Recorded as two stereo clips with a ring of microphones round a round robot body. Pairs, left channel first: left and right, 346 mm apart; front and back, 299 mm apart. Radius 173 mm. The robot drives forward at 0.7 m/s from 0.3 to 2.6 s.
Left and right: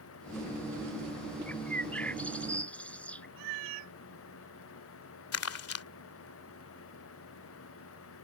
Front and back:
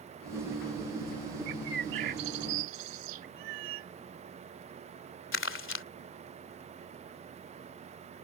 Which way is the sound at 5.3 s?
45° left.